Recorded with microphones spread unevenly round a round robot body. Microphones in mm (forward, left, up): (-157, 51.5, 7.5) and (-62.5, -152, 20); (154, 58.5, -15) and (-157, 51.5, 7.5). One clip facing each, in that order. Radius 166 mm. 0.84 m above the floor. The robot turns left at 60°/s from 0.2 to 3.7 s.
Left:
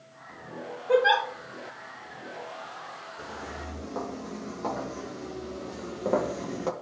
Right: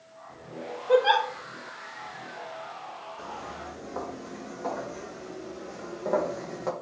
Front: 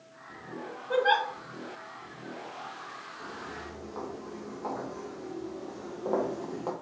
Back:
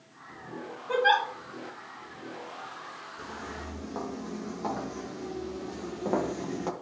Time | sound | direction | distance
0.9 | a giggle | 165° right | 3 m
3.2 | footsteps | 175° right | 2.5 m